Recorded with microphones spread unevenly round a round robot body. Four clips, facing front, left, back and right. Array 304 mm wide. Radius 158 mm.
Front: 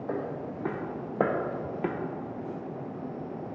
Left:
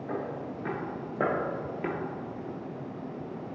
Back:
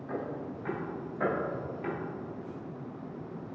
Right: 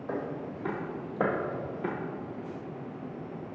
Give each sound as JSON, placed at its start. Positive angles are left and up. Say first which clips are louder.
{"t": 0.1, "sound": "footsteps", "louder": "right 1 dB, front 2 dB", "azimuth_deg": -10, "distance_m": 2.5}